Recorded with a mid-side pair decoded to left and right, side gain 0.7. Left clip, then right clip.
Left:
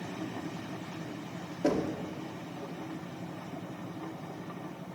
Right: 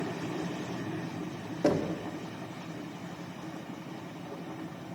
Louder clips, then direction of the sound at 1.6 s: Right 2 dB; 25° right.